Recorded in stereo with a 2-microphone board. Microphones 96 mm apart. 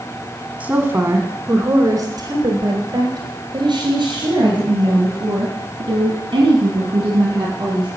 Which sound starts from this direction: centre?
A woman speaking, at 0.6 s.